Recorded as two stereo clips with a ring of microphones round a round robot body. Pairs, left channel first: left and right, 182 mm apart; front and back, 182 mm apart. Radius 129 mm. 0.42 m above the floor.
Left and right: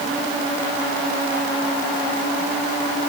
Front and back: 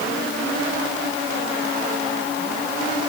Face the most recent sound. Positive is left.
No sound to turn to.